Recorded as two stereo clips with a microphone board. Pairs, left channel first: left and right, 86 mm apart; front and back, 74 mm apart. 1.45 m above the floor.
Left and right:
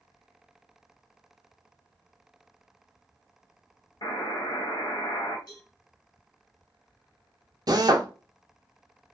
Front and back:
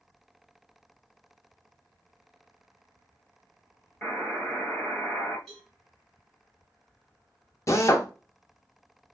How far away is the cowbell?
About 1.8 m.